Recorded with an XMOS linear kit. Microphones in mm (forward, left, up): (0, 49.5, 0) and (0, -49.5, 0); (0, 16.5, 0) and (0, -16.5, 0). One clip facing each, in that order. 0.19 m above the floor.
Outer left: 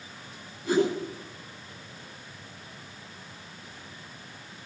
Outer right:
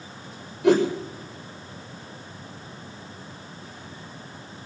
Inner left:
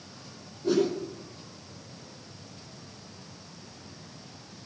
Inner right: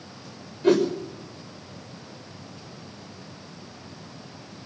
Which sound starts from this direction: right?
A whoosh, at 0.6 s.